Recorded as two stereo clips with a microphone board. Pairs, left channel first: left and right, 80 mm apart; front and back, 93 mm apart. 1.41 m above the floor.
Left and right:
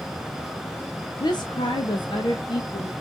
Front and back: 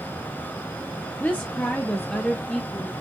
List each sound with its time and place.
1.2 s a woman speaking: 70° left, 0.6 m; by 2.9 s 80° left, 1.6 m